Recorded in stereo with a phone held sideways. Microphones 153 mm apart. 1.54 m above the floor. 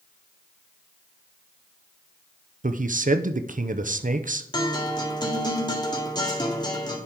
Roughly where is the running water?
No running water in this recording.